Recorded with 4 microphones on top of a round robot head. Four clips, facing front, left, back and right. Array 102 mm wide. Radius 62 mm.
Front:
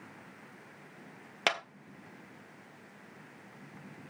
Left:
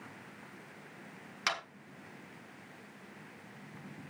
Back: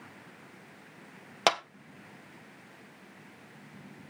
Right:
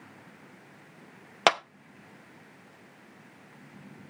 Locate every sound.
1.5 s a clap: 105° right, 0.8 m